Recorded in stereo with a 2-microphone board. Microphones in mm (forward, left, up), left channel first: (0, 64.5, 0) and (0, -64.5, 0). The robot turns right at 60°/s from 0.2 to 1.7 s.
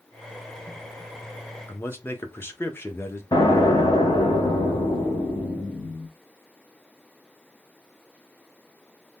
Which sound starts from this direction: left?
An explosion, at 3.3 s.